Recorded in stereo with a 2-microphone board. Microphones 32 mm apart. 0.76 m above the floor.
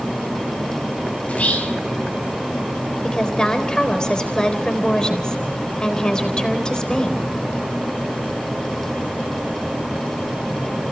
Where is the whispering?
45° left (ahead or behind), 3.5 m.